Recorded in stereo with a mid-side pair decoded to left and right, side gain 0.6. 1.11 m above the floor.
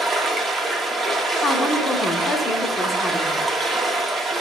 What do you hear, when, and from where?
0.0 s running water: 25° right, 0.8 m
1.4 s a woman speaking: 15° left, 0.9 m